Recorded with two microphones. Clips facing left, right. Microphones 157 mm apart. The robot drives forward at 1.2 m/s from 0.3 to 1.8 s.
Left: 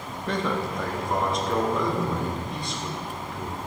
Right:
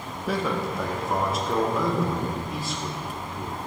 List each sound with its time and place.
0.3 s a man speaking: 5° right (ahead or behind), 1.1 m